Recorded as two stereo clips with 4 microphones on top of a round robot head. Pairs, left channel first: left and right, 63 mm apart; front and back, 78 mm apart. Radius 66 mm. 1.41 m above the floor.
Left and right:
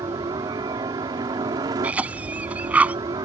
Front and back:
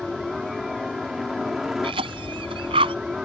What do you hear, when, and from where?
0.0 s a helicopter: 95° right; by 3.2 s 100° right
1.8 s a cough: 160° right